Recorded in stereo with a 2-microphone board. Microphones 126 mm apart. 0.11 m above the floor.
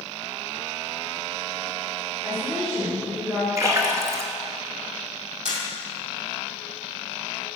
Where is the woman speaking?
25° right (ahead or behind), 2.5 m.